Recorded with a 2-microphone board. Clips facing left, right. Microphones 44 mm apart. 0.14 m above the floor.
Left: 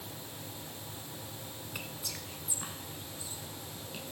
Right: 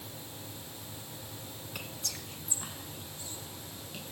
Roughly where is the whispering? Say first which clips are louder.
Right 1 dB; centre.